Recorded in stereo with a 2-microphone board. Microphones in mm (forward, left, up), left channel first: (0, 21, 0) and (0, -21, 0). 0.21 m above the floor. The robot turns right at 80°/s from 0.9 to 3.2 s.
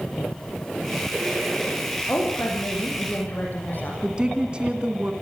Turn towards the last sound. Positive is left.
turn(degrees=-25)  # may be behind; listen again after turning